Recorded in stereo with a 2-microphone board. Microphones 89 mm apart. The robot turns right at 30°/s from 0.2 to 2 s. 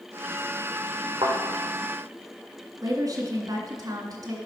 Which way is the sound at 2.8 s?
45° right (ahead or behind).